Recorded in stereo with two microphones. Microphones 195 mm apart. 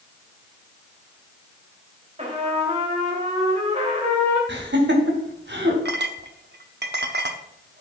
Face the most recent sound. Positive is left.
turn(degrees=-60)  # may be behind; listen again after turning